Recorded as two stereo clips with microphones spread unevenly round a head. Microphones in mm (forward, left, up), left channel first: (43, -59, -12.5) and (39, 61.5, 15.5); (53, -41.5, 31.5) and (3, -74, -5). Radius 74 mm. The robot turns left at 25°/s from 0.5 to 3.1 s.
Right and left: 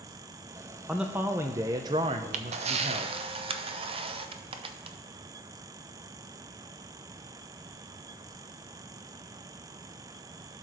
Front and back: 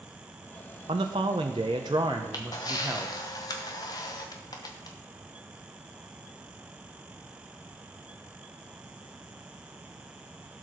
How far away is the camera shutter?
About 0.8 m.